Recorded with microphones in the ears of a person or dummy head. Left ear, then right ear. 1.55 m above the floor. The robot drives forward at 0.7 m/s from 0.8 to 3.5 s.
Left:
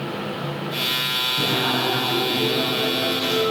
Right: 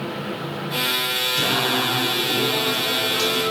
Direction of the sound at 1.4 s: 50° right (ahead or behind).